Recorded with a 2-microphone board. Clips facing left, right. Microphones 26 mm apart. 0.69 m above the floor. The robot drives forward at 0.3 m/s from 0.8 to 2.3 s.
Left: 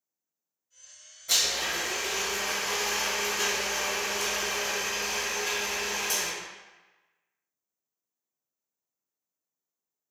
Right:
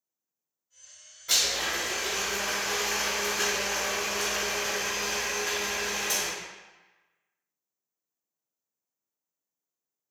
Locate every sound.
1.3 s a blender: 25° right (ahead or behind), 1.3 m; by 6.3 s 20° right (ahead or behind), 1.6 m